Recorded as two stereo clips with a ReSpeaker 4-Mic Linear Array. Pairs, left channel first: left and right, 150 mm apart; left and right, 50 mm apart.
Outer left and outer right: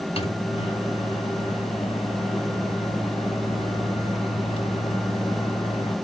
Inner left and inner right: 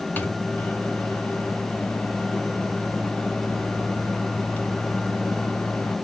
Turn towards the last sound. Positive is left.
turn(degrees=40)  # may be behind; listen again after turning